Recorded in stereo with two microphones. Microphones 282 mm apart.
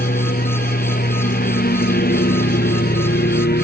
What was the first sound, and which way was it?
A lawn mower, 30° left (ahead or behind).